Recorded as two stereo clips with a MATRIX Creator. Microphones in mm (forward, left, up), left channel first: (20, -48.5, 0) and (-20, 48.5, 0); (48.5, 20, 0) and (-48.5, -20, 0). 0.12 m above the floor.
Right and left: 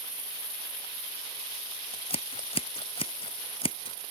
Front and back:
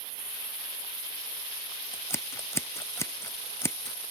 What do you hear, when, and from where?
1.9 s scissors: 40° right